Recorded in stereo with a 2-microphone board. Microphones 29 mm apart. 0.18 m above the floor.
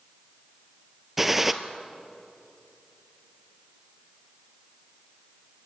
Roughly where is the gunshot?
Centre.